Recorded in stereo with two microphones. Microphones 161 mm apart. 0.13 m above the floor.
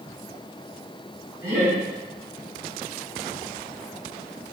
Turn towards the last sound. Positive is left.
turn(degrees=-20)  # may be behind; listen again after turning